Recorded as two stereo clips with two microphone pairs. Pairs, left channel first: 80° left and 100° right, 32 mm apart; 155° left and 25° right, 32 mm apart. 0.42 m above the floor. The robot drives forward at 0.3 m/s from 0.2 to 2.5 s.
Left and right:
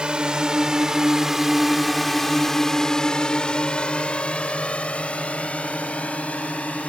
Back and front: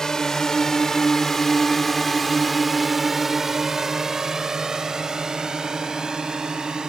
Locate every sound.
0.0 s a drone: 140° right; by 6.9 s 40° left